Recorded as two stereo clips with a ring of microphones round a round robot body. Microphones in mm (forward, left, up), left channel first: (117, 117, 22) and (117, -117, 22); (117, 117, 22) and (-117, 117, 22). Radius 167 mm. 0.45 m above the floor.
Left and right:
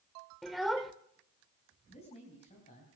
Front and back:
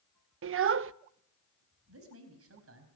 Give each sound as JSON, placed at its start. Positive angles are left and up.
{"t": 0.4, "sound": "a child speaking", "azimuth_deg": 180, "distance_m": 0.6}
{"t": 1.9, "sound": "a man speaking", "azimuth_deg": 160, "distance_m": 4.0}